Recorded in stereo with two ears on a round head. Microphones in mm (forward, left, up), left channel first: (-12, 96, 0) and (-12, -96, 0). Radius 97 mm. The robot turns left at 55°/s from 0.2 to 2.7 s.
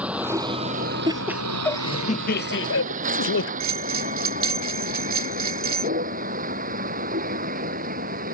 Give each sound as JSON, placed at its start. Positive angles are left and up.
{"t": 0.0, "sound": "a vehicle", "side_deg": -5}
{"t": 1.1, "sound": "laughter", "azimuth_deg": -160}
{"t": 3.6, "sound": "a bell", "side_deg": -65}